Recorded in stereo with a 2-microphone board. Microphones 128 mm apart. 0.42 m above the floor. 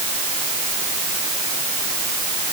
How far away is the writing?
I don't hear writing.